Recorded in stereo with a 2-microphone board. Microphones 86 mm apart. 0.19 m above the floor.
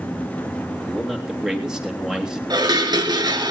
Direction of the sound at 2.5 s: 55° right (ahead or behind).